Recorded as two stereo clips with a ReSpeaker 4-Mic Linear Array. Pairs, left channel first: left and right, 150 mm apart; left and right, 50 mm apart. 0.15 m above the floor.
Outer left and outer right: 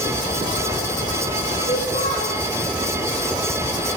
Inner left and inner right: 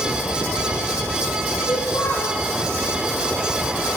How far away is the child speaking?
About 5 m.